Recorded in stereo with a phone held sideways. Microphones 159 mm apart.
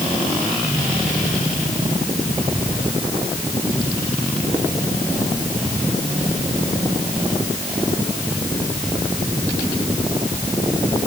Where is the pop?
No pop in this recording.